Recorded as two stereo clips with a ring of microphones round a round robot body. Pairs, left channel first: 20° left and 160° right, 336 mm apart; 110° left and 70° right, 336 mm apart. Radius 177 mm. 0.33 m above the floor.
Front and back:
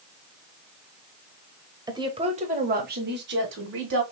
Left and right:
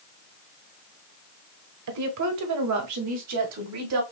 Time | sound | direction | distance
1.9 | a woman speaking | 80° right | 1.3 m